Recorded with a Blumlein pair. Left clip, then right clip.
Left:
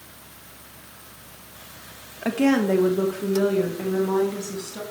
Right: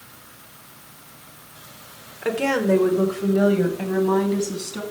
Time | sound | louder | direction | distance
2.2 | a woman speaking | even | straight ahead | 1.6 m